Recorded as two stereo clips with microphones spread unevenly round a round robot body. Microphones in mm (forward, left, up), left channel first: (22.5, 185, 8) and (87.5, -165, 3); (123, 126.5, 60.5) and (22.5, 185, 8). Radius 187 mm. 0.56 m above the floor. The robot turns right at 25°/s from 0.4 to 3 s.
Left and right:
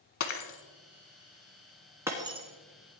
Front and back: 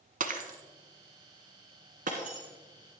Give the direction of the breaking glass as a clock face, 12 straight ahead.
7 o'clock.